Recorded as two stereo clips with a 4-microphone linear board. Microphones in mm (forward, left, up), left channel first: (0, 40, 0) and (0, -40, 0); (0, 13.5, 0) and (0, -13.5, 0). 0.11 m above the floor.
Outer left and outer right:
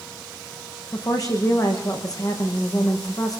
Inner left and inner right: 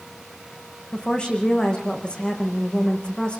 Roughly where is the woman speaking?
Left.